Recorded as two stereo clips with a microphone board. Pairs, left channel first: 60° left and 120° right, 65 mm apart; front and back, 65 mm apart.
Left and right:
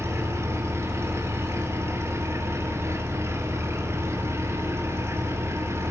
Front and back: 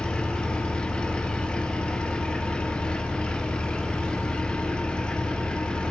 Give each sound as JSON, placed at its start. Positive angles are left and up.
{"t": 0.0, "sound": "an engine running", "azimuth_deg": -75, "distance_m": 2.5}